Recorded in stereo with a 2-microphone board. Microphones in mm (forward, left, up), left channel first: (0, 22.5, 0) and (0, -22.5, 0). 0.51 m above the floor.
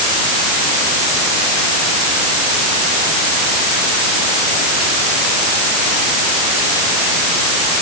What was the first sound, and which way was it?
Only background noise.